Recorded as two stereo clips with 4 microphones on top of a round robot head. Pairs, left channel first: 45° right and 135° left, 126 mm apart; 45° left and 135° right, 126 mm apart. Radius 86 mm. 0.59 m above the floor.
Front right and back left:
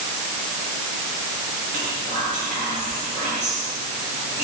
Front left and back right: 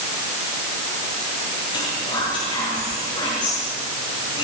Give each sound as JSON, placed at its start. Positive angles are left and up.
{"t": 1.7, "sound": "whispering", "azimuth_deg": 100, "distance_m": 9.0}